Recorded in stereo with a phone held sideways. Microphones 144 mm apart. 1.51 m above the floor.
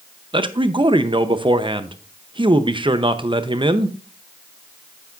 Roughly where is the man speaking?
Right.